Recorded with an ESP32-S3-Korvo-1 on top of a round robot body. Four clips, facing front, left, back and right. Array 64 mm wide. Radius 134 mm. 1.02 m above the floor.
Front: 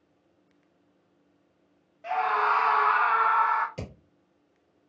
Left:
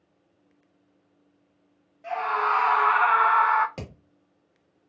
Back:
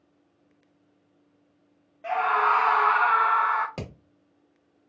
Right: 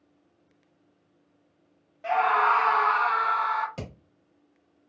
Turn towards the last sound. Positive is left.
turn(degrees=150)